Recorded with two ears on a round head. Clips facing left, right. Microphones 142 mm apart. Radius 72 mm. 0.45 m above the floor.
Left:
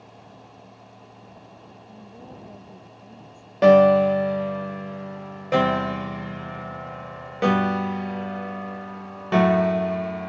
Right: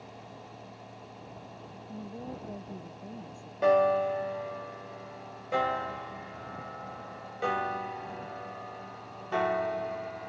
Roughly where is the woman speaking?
Centre.